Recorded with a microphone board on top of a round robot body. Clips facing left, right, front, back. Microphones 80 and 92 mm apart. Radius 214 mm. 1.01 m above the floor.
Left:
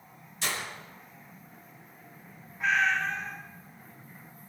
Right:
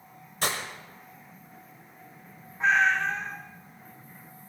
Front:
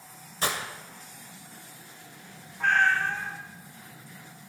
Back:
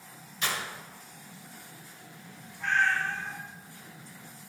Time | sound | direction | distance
0.4 | breaking glass | 50° right | 1.9 m
2.6 | a cat meowing | 30° right | 0.7 m